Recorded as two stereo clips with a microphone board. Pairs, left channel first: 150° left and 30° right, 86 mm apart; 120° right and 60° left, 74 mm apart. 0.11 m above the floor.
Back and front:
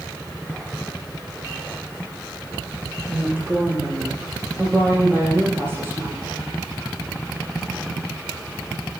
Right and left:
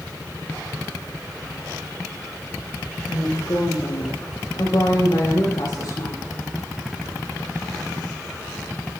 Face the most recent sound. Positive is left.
turn(degrees=-85)